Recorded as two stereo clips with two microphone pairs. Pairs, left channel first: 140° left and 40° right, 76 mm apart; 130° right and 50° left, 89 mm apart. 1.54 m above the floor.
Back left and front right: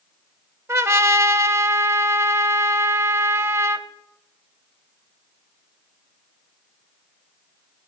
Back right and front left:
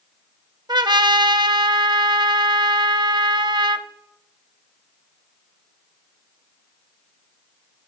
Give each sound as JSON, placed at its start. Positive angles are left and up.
{"t": 0.7, "sound": "a trumpet", "azimuth_deg": 10, "distance_m": 0.7}